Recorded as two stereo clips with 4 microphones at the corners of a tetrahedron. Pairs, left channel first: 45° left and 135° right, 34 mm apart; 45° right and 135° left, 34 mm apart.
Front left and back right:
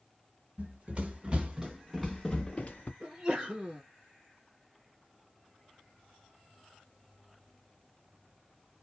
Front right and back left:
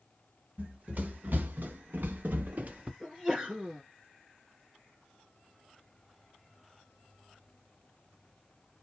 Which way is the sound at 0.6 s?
175° left.